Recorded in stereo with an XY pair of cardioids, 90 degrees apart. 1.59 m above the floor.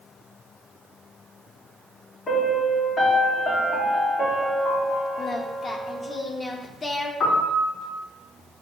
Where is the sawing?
I don't hear sawing.